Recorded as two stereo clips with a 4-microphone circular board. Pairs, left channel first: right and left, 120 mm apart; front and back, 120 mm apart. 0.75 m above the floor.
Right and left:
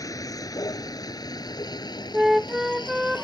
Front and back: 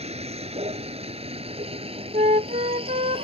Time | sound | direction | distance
0.0 | a vehicle | 150° right | ?
2.1 | a flute | 175° left | ?